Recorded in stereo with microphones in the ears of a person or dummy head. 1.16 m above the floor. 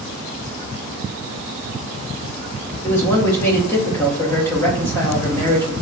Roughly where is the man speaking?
Centre.